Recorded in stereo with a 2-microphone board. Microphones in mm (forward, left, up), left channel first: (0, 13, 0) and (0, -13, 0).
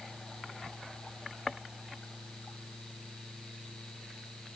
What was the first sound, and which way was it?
Only background noise.